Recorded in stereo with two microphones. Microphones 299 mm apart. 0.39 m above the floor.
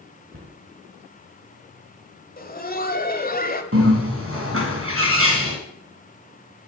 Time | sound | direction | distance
0.3 | a cupboard door | 50° right (ahead or behind) | 5.5 m
2.4 | laughter | 30° left (ahead or behind) | 1.7 m
3.7 | a bird | 45° right (ahead or behind) | 3 m